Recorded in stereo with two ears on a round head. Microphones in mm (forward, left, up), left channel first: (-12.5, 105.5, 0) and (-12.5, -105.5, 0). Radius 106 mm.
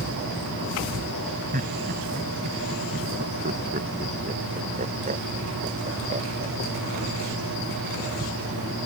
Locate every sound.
1.5 s laughter: 35° right (ahead or behind); by 6.9 s 30° right (ahead or behind)